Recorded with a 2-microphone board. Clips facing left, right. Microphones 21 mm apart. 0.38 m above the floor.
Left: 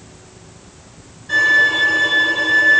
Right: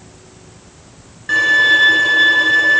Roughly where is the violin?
Right.